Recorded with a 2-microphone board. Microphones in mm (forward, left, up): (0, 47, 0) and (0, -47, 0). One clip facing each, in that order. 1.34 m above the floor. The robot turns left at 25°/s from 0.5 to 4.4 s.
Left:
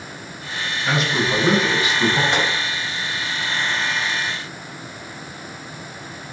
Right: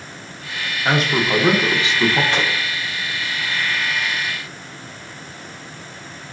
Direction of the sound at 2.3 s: 20° left (ahead or behind).